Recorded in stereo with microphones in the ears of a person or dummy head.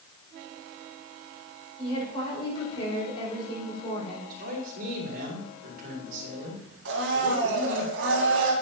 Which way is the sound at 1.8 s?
35° left (ahead or behind).